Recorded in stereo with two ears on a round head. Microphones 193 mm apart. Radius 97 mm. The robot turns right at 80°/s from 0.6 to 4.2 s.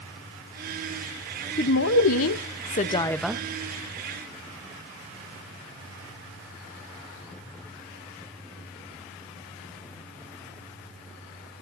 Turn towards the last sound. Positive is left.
turn(degrees=-105)